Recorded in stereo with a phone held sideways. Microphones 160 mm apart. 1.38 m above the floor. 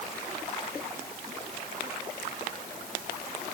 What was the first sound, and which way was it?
Only background noise.